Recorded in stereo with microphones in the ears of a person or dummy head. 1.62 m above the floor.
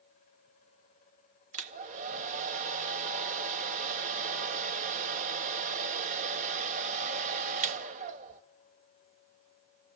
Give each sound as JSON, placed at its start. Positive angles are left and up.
{"t": 1.5, "sound": "a hair dryer", "side_deg": -40, "distance_m": 1.3}